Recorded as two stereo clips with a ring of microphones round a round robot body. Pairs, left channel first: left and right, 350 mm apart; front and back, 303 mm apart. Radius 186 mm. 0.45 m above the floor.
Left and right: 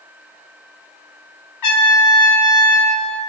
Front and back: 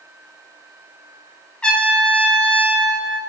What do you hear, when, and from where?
1.6 s a trumpet: 85° left, 0.7 m